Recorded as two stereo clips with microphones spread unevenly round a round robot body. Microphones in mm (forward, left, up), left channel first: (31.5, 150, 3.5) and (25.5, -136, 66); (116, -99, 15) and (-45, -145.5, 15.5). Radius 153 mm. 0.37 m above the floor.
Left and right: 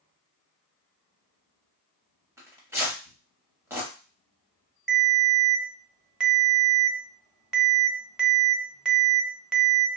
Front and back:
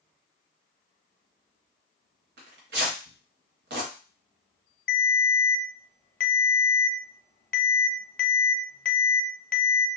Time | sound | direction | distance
2.4 | tearing paper | 175° right | 0.7 m
4.9 | a ringtone | 5° left | 0.7 m